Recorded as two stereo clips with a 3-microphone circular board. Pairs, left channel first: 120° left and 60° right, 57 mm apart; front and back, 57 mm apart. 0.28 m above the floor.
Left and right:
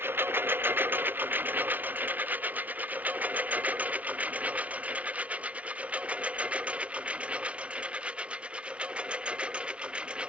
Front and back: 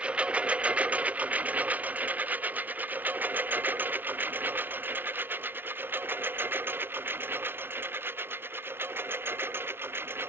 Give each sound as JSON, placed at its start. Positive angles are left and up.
{"t": 0.0, "sound": "a lawn mower", "azimuth_deg": -110}